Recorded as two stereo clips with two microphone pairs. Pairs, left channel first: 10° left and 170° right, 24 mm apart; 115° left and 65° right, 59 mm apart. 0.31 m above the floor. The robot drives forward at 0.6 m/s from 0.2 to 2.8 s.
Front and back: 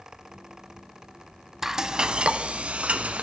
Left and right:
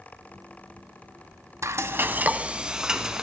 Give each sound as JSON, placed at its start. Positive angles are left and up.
{"t": 1.6, "sound": "frying", "azimuth_deg": -100, "distance_m": 0.5}